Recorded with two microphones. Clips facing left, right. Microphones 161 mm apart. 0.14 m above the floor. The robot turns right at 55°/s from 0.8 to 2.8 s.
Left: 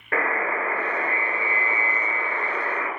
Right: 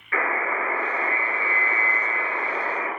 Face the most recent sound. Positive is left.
turn(degrees=-155)